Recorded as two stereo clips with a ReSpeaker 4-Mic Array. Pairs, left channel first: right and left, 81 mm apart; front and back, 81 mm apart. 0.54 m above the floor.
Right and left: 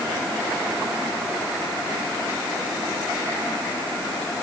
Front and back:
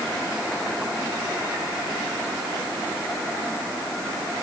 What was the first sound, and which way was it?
Only background noise.